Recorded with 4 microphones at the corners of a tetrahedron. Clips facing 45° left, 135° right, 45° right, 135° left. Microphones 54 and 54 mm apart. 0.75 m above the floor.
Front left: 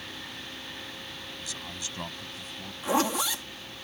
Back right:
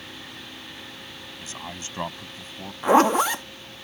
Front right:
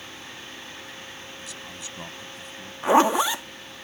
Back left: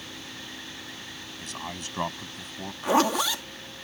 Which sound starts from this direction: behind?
A man speaking, at 1.4 s.